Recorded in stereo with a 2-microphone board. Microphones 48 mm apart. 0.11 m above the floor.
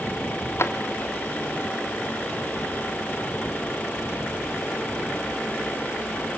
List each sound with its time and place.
0.6 s a drawer: 65° left (ahead or behind), 1.1 m